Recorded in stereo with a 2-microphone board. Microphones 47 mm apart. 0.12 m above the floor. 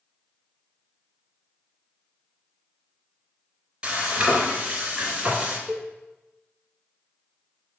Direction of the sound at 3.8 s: 20° right (ahead or behind).